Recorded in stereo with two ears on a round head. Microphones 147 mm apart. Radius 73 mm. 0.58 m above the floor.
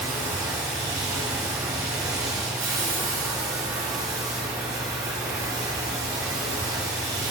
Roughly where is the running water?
Right.